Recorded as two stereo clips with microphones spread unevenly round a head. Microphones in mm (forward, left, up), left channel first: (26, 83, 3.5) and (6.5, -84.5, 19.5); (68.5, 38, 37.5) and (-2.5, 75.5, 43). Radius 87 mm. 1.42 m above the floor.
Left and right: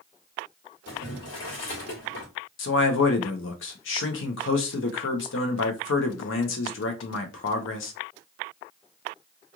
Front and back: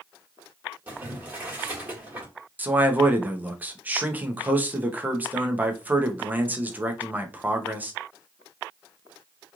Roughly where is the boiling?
Left.